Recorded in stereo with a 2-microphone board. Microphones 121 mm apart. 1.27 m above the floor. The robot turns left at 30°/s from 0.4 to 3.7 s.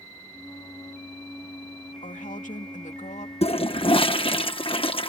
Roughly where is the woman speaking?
Left.